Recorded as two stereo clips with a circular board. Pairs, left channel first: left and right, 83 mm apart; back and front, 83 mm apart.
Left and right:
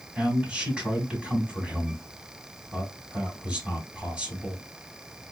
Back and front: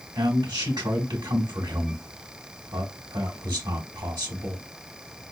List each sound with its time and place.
0.1 s a man speaking: 15° right, 2.5 m